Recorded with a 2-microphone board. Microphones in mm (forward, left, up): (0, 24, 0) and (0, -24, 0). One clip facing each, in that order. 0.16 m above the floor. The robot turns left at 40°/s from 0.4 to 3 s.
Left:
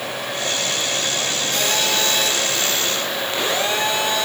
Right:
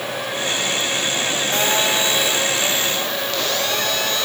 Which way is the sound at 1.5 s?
140° right.